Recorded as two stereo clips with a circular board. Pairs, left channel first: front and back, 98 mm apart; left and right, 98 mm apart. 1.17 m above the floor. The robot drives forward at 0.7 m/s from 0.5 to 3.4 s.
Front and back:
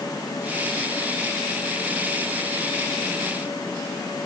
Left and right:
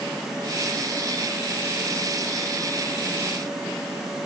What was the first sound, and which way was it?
Only background noise.